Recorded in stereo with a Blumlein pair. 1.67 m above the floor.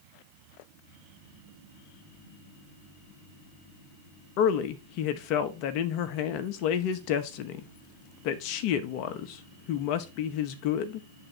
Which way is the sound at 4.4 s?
45° left.